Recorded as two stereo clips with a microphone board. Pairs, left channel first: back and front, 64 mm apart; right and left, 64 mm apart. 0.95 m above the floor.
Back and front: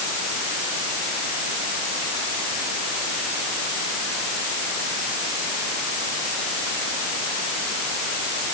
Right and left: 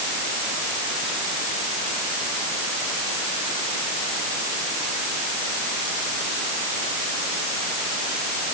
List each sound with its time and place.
Only background noise.